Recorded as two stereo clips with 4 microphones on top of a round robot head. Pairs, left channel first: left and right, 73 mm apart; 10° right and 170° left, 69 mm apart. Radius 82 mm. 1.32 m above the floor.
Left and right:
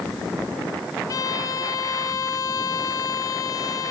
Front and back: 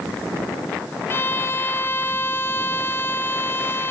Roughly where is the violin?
Ahead left.